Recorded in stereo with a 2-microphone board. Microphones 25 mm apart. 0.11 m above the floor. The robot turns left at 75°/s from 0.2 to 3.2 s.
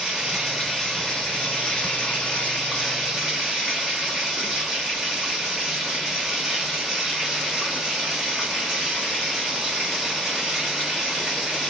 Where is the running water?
145° right, 1.3 m; by 11.7 s 10° right, 1.3 m.